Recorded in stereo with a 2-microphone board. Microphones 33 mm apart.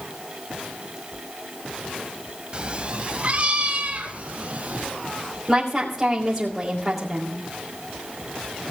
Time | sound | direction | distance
2.5 | a cat meowing | 30° right (ahead or behind) | 1.1 m
5.5 | a woman speaking | 15° right (ahead or behind) | 2.5 m